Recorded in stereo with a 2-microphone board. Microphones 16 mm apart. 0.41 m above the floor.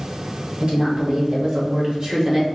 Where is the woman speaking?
65° right (ahead or behind), 2 m; by 2.5 s 35° right (ahead or behind), 1.2 m.